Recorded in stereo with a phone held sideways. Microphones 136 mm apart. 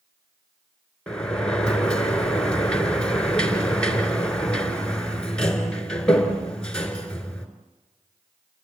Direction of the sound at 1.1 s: 5° left (ahead or behind).